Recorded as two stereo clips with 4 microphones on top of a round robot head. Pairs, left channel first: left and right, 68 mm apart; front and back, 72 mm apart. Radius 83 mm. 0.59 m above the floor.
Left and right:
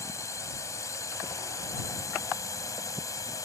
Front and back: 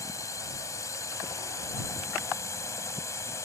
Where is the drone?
45° left; by 3.5 s 50° left.